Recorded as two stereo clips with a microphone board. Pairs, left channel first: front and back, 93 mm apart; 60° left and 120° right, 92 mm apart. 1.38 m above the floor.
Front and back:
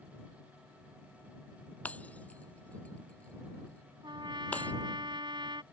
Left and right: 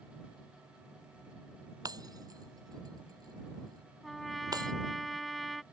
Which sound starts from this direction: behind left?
A trumpet, at 4.0 s.